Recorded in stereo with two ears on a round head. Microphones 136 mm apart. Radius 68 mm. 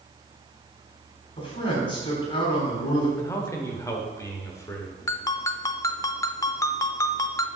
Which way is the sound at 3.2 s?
20° left (ahead or behind).